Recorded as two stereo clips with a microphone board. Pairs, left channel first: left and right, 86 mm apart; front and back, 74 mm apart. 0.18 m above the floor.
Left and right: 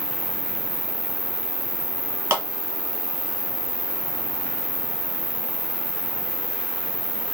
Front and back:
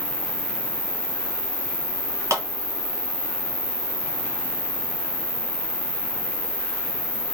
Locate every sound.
0.0 s an insect: 125° right, 0.9 m
2.3 s a clap: 140° right, 1.9 m